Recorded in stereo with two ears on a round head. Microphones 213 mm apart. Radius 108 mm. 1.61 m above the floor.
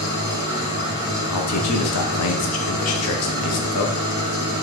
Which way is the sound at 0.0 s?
80° left.